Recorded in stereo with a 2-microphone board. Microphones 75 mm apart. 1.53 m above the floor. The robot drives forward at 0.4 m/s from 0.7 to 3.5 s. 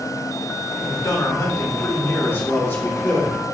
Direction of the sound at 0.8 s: 60° left (ahead or behind).